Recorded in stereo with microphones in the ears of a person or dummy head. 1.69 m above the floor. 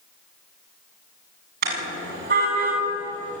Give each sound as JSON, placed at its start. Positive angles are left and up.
{"t": 1.6, "sound": "a car horn", "side_deg": -50, "distance_m": 7.0}